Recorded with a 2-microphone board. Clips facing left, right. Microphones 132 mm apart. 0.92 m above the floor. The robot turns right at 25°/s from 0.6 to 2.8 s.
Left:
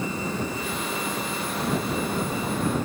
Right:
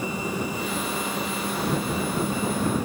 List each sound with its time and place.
Only background noise.